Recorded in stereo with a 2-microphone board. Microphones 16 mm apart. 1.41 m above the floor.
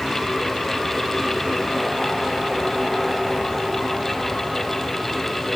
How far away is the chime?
No chime in this recording.